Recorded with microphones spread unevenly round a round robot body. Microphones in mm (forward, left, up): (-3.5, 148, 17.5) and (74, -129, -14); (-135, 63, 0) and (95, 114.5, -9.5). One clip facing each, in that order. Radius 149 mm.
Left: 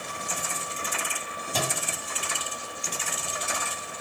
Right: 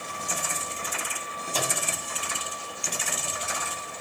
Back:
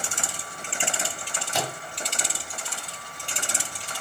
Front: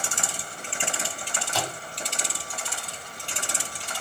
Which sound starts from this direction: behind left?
A microwave, at 1.5 s.